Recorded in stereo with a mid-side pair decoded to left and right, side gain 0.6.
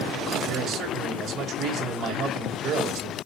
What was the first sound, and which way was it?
A man speaking, 50° right.